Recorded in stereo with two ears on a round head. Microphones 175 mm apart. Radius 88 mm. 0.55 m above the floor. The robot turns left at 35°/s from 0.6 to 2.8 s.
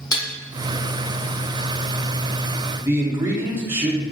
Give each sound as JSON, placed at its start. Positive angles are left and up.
{"t": 0.1, "sound": "dishes clattering", "side_deg": 20, "distance_m": 0.6}
{"t": 2.8, "sound": "a man speaking", "side_deg": -10, "distance_m": 0.7}